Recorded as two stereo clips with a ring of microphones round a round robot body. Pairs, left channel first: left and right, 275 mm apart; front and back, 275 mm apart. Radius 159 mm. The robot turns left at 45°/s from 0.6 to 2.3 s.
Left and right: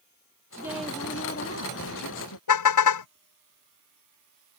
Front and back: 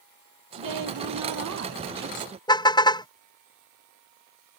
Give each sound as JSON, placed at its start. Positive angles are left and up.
{"t": 0.5, "sound": "a woman speaking", "azimuth_deg": -170}
{"t": 2.5, "sound": "a car horn", "azimuth_deg": 75}